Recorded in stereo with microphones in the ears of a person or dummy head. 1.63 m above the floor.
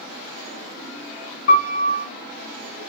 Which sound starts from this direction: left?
A piano, at 1.5 s.